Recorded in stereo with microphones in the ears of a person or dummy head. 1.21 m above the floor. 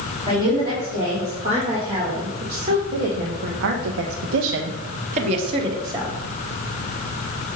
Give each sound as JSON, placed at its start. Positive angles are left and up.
{"t": 0.3, "sound": "a woman speaking", "side_deg": -25, "distance_m": 2.5}